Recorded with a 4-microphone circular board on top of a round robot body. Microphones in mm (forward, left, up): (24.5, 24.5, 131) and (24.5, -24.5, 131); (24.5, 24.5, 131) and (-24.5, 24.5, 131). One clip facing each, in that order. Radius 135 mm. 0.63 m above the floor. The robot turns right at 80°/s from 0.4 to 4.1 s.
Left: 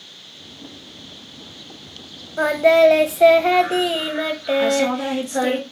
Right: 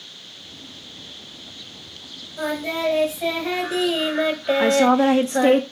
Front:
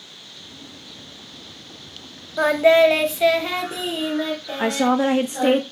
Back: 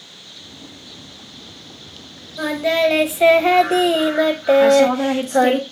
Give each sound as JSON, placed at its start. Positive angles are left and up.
{"t": 2.4, "sound": "singing", "azimuth_deg": 40, "distance_m": 0.8}
{"t": 4.6, "sound": "a woman speaking", "azimuth_deg": -55, "distance_m": 1.3}